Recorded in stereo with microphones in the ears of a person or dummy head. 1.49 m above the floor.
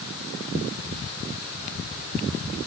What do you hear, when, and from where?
Only background noise.